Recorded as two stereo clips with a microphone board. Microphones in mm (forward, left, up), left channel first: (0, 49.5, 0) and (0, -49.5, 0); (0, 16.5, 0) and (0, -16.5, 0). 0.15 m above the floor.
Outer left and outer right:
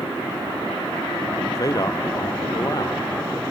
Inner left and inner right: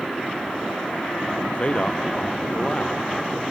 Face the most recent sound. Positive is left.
turn(degrees=35)  # may be behind; listen again after turning